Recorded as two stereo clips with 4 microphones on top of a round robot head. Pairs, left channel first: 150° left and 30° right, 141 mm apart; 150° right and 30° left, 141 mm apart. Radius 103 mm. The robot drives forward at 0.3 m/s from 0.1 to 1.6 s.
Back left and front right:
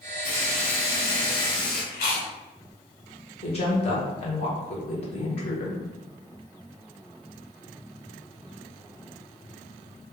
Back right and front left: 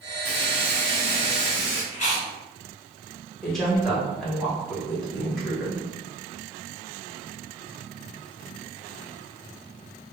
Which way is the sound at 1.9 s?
170° left.